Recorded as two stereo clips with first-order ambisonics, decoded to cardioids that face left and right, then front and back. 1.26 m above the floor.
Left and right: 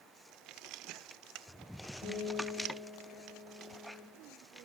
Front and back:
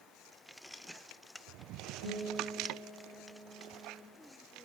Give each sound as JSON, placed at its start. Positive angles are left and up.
{"t": 2.0, "sound": "a guitar", "azimuth_deg": 155, "distance_m": 1.9}